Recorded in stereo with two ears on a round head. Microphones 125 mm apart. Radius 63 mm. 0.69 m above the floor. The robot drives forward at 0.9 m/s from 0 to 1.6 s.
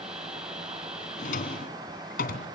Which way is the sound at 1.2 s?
55° left (ahead or behind).